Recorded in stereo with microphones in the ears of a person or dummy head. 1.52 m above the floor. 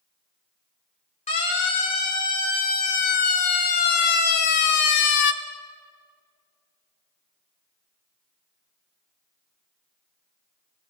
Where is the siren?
30° left (ahead or behind), 3.5 m; by 5.3 s 65° left (ahead or behind), 1.2 m.